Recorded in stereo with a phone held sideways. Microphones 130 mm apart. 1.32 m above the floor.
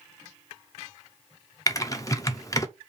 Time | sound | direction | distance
1.7 | typing on a keyboard | 25° left (ahead or behind) | 0.5 m